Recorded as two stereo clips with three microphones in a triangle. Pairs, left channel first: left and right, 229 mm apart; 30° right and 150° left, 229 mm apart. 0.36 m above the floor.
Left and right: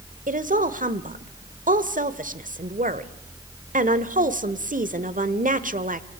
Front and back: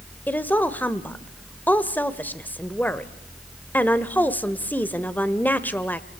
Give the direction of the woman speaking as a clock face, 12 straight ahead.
4 o'clock.